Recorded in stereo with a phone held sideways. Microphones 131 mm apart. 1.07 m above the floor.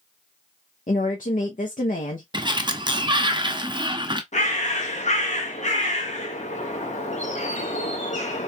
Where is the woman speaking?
80° left, 0.7 m.